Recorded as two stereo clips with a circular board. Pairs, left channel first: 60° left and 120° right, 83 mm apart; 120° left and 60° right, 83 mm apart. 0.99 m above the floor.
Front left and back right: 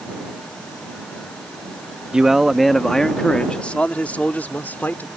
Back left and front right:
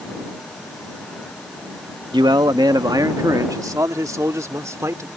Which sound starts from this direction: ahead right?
A man speaking, at 2.1 s.